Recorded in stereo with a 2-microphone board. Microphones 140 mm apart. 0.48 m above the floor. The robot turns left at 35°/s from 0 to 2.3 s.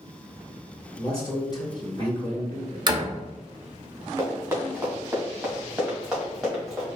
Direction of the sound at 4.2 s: 20° right (ahead or behind).